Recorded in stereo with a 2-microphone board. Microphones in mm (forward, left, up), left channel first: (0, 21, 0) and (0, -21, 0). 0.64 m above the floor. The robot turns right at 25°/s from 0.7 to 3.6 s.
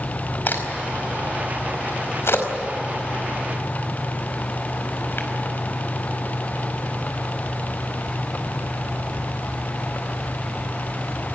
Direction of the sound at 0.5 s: 45° left (ahead or behind).